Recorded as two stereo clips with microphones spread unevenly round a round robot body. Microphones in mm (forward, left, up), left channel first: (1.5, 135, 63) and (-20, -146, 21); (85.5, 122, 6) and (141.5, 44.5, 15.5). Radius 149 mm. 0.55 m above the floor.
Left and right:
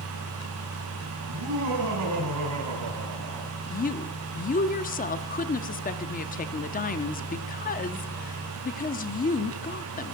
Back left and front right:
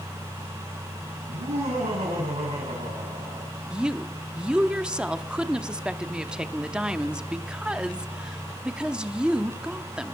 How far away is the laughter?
About 4 m.